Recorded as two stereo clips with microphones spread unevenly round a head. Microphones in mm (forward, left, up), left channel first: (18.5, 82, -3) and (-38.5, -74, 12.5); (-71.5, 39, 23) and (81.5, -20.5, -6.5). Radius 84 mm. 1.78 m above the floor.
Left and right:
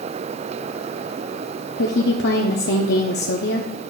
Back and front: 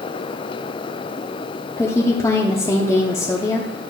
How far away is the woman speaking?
About 0.9 m.